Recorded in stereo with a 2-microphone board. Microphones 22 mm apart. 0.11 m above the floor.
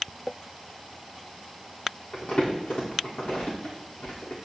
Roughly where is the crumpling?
Left.